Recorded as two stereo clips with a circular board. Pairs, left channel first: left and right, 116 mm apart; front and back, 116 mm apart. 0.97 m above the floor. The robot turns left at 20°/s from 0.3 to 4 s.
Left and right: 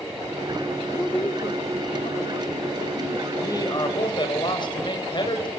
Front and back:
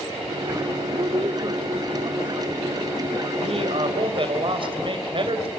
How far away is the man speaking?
About 4 m.